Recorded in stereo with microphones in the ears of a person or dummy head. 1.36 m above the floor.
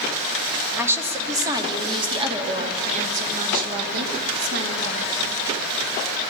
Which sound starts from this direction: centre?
A woman speaking, at 0.8 s.